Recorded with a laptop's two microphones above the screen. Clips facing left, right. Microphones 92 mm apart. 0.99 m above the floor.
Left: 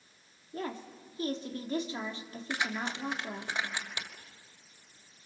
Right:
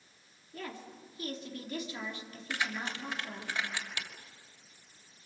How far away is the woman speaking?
About 2.5 m.